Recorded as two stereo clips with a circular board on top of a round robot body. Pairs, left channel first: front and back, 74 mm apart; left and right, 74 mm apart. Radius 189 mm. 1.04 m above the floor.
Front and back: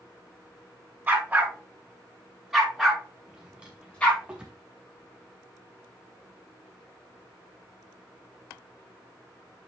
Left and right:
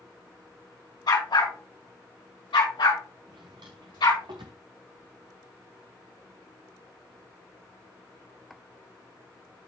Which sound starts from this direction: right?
A drawer, at 3.3 s.